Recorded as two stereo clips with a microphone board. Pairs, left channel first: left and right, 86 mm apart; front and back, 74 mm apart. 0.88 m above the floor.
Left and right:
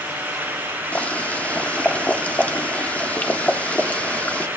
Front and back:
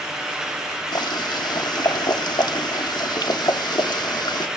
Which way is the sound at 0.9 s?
20° left.